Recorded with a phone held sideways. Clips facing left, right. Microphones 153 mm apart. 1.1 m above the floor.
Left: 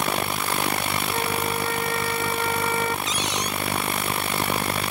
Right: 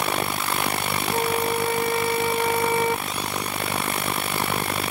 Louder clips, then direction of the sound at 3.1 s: Left 1 dB; 85° left.